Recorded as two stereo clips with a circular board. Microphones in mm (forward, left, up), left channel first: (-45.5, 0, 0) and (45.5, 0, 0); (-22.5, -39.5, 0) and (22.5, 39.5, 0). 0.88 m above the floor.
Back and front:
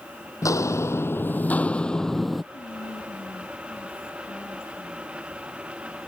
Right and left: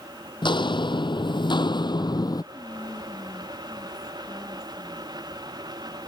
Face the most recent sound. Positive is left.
turn(degrees=180)